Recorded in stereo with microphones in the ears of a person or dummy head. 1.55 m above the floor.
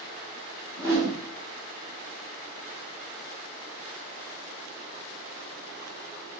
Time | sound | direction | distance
0.8 | a whoosh | 25° left (ahead or behind) | 1.4 m